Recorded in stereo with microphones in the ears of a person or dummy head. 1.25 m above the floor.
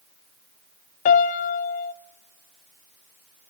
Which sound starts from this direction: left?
A piano, at 1.1 s.